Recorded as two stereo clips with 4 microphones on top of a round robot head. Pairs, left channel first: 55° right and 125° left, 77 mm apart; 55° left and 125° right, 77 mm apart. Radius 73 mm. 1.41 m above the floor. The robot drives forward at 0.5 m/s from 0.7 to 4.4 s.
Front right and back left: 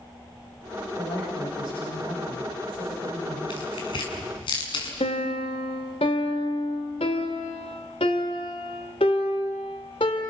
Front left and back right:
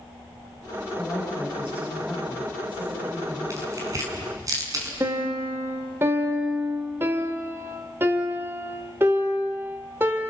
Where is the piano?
65° right, 1.5 m.